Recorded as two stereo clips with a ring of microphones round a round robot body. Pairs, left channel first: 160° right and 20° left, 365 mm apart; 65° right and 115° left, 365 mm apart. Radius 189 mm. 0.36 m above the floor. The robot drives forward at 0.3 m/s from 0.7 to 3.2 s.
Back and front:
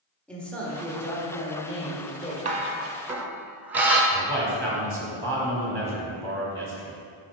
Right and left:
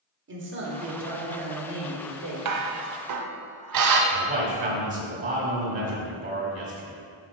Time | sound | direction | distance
0.3 | a man speaking | 120° left | 1.4 m
2.5 | dishes clattering | 90° left | 0.8 m
4.1 | a man speaking | 130° left | 1.3 m